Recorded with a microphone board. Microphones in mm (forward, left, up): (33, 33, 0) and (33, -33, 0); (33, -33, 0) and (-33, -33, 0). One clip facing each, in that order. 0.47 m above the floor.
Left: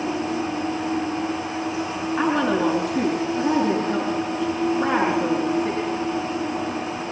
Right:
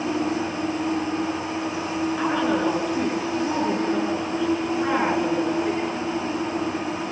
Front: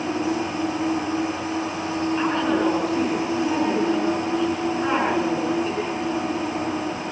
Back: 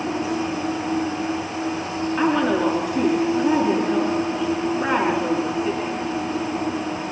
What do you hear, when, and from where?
2.2 s a woman speaking: 110° left, 6 m